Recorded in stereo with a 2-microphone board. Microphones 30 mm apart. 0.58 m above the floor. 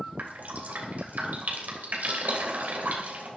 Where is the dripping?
65° right (ahead or behind), 3 m.